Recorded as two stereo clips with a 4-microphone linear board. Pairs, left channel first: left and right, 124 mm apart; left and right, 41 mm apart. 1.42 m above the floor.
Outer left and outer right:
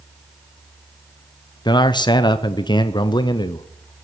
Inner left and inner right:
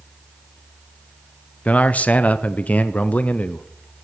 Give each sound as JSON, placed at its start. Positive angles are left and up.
{"t": 1.6, "sound": "a man speaking", "side_deg": 40, "distance_m": 0.7}